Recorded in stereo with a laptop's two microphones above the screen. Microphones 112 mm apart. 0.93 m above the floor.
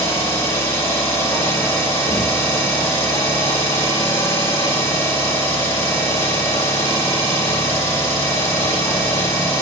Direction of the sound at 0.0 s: 25° left (ahead or behind).